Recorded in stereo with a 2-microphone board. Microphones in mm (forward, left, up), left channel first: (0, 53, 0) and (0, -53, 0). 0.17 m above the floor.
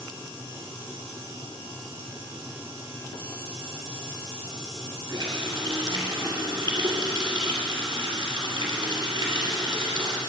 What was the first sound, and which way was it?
A running tap, 45° right (ahead or behind).